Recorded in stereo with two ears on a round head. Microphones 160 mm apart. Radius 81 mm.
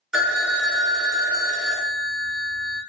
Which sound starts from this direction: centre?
A phone ringing, at 0.1 s.